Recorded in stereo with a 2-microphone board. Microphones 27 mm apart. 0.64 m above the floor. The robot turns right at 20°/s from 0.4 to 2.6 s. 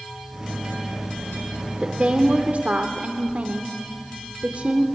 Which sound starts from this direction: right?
A woman speaking, at 1.8 s.